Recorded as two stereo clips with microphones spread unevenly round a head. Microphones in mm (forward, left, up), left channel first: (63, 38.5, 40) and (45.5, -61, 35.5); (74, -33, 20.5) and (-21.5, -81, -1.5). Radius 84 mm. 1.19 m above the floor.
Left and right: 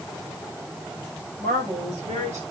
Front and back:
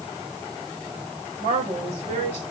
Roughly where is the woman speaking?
Behind right.